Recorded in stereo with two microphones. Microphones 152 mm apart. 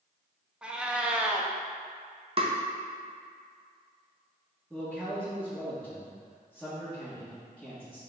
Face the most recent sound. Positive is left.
turn(degrees=-5)  # may be behind; listen again after turning